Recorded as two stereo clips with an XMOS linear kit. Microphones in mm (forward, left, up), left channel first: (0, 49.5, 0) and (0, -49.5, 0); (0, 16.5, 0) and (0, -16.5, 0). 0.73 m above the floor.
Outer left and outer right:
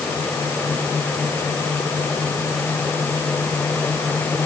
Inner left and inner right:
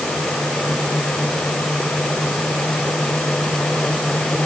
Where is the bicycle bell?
I don't hear a bicycle bell.